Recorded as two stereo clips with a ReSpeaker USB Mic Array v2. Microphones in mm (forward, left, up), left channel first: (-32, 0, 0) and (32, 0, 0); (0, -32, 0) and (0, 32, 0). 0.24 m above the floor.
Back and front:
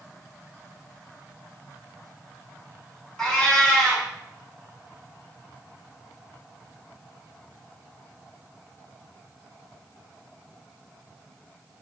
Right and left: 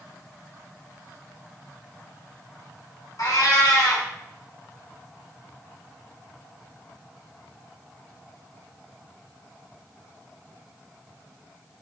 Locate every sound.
3.2 s a cat meowing: 100° right, 0.7 m